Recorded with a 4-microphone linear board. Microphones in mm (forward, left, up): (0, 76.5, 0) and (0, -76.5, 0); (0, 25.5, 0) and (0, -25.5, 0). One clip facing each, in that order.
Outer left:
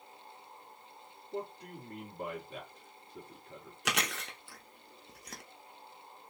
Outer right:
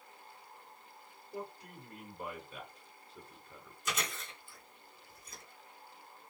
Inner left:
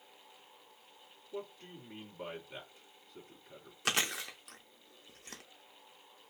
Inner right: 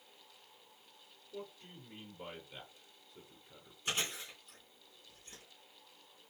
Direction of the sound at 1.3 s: 50° left (ahead or behind).